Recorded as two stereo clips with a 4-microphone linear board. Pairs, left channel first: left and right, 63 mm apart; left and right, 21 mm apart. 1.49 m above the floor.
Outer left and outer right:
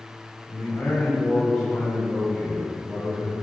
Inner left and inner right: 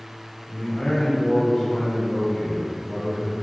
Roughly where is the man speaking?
Left.